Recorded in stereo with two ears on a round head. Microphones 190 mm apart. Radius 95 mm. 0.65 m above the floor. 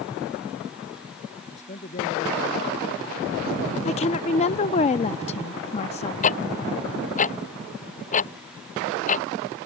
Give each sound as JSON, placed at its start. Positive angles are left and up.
{"t": 1.5, "sound": "a man speaking", "side_deg": 35}
{"t": 3.9, "sound": "a woman speaking", "side_deg": 30}
{"t": 6.2, "sound": "ticking", "side_deg": 35}